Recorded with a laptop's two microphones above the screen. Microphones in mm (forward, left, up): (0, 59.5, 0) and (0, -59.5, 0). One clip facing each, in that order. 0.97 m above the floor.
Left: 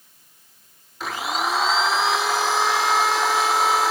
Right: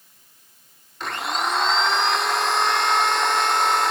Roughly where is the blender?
Centre.